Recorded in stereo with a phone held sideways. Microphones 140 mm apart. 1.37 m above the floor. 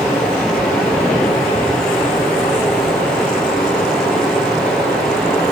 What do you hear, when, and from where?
0.0 s running water: centre (ahead or behind), 9.5 m